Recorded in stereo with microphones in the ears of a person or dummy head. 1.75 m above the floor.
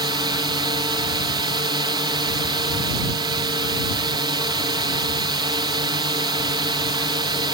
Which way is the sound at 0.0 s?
25° right (ahead or behind).